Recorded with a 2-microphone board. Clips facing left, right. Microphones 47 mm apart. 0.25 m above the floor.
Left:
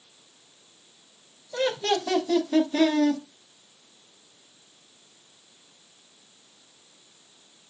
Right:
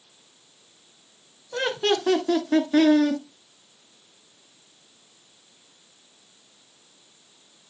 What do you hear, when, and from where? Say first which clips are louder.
1.5 s laughter: right 1 dB; 65° right (ahead or behind), 3 m